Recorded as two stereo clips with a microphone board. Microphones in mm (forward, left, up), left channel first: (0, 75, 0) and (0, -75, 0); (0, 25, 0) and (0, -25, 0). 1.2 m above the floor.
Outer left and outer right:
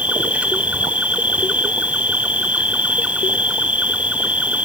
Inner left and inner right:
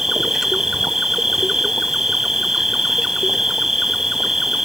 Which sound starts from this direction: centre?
An insect, at 0.0 s.